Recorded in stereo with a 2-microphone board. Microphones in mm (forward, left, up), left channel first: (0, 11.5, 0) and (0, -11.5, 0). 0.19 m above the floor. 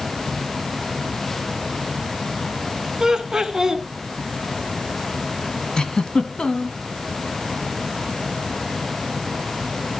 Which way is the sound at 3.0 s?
25° right (ahead or behind).